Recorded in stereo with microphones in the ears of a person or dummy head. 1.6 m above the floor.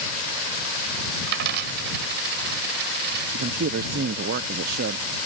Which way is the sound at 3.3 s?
60° right (ahead or behind).